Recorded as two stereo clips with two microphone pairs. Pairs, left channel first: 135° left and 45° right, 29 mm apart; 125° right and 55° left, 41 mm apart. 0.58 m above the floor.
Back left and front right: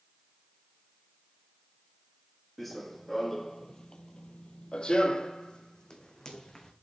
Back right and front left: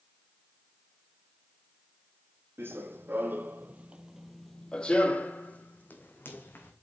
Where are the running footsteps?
50° left, 1.3 m; by 6.7 s 155° right, 1.9 m.